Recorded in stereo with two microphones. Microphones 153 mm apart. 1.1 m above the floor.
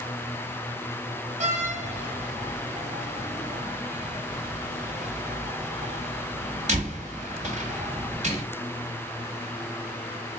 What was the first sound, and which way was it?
A door slam, 50° right (ahead or behind).